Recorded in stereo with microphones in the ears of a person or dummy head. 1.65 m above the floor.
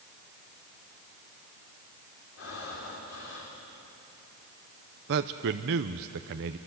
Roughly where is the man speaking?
Right.